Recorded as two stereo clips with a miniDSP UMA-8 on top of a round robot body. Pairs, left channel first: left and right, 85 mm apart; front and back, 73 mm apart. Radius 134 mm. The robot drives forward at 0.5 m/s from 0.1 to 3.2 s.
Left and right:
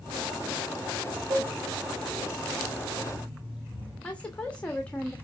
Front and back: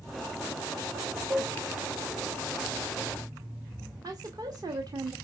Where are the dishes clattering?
130° right, 2 m; by 1.5 s 135° right, 2 m.